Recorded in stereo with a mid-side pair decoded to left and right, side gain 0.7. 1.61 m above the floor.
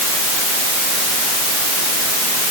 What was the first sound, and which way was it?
Only background noise.